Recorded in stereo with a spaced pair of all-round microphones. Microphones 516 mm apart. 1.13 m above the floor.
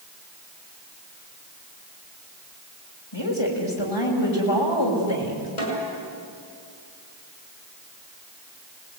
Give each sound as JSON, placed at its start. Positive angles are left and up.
{"t": 3.1, "sound": "a woman speaking", "side_deg": 60, "distance_m": 6.5}
{"t": 5.6, "sound": "a snare drum", "side_deg": 85, "distance_m": 6.5}